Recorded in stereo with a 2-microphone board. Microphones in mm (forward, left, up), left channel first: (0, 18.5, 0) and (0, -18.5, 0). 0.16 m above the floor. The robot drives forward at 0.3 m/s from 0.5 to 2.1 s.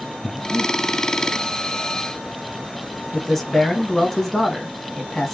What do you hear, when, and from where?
0.2 s breathing: 10° left (ahead or behind), 1.0 m
3.1 s a man speaking: 5° left (ahead or behind), 1.4 m